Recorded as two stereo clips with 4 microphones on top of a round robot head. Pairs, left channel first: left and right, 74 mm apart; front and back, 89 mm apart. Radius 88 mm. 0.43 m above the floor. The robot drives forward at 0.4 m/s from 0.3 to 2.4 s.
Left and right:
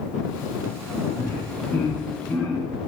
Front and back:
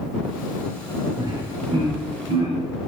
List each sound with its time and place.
1.2 s laughter: 150° left, 1.2 m; by 2.6 s 160° left, 1.6 m